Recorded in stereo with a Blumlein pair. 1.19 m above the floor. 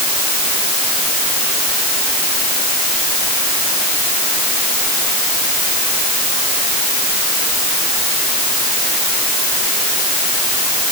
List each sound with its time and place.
Only background noise.